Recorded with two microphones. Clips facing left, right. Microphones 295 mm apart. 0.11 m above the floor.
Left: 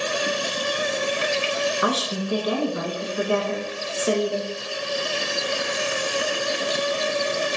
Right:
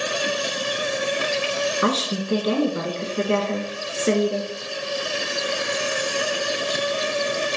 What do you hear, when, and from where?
1.8 s a woman speaking: 25° right (ahead or behind), 1.4 m